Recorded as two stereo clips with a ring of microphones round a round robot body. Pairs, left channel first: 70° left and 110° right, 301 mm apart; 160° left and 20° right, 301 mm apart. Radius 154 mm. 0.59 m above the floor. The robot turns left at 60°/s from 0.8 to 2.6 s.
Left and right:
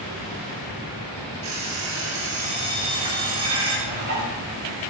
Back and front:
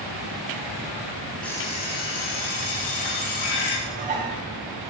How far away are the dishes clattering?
About 6 m.